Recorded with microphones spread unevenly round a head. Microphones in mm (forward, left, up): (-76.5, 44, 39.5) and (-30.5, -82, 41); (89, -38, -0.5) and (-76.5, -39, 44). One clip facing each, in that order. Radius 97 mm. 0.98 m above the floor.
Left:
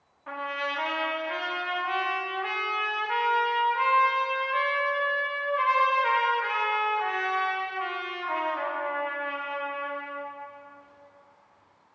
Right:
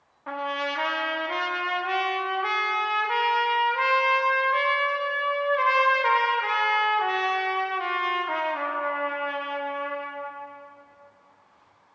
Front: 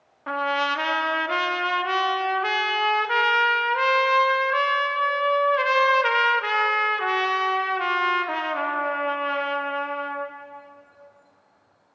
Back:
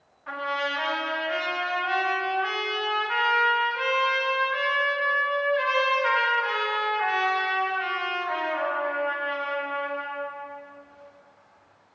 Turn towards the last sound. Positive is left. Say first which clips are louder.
# right 4 dB, front 4 dB
turn(degrees=-10)